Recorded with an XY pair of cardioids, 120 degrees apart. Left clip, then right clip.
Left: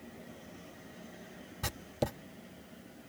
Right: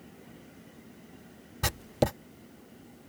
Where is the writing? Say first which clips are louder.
Right 7 dB; 40° right.